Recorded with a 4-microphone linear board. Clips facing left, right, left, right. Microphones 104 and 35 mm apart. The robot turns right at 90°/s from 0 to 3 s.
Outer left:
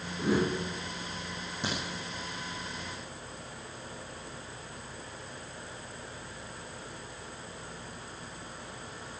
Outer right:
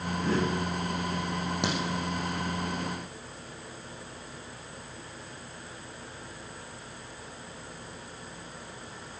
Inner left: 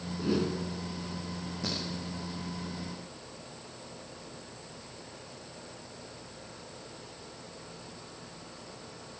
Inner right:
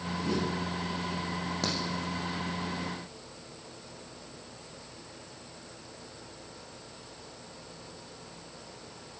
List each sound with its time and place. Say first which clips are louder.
0.2 s a whoosh: outer left 1 dB, inner left 2 dB; 150° left, 1.5 m; by 0.6 s 175° right, 1.5 m
1.6 s a crack: outer right 3 dB, inner right 2 dB; 80° right, 5.5 m; by 1.8 s 75° right (ahead or behind), 5.5 m